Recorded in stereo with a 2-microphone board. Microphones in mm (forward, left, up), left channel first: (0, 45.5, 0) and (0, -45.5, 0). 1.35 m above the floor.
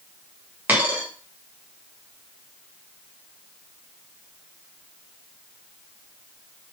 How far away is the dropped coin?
About 0.9 m.